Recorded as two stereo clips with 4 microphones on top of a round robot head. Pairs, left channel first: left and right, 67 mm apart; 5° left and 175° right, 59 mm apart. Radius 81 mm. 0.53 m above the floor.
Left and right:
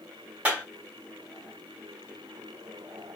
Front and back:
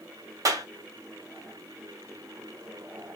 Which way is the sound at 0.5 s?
160° right.